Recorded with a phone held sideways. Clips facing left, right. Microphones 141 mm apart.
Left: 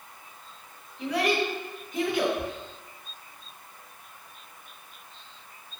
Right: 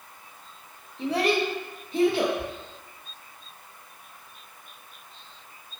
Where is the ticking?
I don't hear ticking.